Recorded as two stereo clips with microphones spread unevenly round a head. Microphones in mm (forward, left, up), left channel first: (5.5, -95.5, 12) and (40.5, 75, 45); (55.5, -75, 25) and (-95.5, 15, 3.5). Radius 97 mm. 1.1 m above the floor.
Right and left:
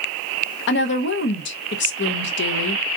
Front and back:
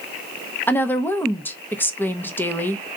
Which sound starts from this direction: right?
A woman speaking, at 0.7 s.